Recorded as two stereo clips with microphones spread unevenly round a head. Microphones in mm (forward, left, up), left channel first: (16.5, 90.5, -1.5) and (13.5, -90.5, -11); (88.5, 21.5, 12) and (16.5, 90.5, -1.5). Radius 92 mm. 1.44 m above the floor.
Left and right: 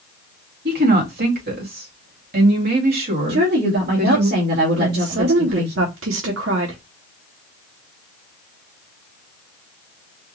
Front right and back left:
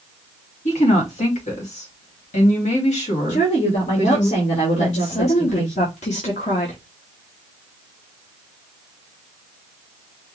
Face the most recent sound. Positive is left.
turn(degrees=-75)